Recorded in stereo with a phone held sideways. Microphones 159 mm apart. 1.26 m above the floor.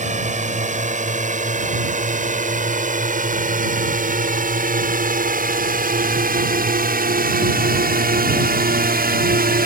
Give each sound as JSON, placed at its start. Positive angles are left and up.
{"t": 0.0, "sound": "a drone", "side_deg": -50}